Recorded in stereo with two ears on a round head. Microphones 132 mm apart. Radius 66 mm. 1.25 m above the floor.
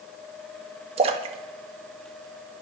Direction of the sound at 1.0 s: 40° right (ahead or behind).